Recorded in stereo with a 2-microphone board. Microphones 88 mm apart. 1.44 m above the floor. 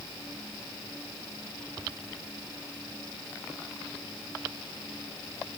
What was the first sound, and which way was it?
Only background noise.